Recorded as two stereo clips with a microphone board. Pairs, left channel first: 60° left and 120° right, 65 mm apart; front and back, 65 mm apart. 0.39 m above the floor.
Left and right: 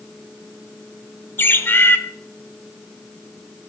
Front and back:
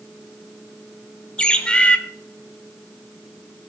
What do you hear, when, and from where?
1.4 s a bird: 60° left, 0.7 m